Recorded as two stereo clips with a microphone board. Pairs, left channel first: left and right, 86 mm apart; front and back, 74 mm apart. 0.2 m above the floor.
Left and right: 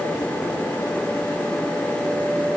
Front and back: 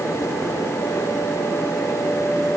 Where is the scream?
I don't hear a scream.